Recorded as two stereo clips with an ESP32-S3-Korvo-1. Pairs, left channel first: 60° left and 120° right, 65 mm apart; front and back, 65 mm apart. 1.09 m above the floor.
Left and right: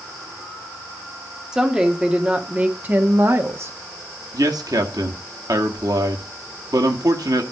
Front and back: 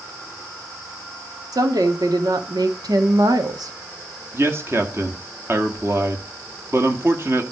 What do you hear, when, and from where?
1.5 s a woman speaking: 160° left, 2.5 m; by 3.7 s 165° right, 1.5 m
4.3 s a man speaking: 130° right, 2 m